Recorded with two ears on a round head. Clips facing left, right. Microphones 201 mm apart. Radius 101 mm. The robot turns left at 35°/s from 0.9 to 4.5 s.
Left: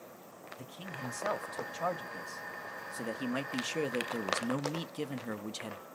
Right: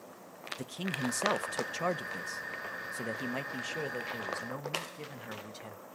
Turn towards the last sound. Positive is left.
turn(degrees=125)